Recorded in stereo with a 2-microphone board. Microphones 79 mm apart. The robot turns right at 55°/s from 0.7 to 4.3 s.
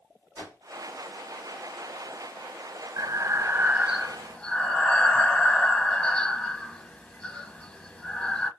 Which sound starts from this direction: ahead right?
Breathing, at 3.0 s.